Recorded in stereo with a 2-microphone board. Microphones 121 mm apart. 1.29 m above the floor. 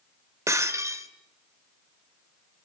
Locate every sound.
0.5 s breaking glass: 25° right (ahead or behind), 1.6 m